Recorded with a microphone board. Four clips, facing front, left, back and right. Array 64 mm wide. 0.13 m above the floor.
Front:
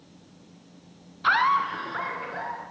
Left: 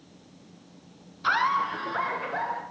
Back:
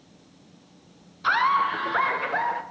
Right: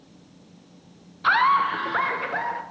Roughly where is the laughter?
Ahead right.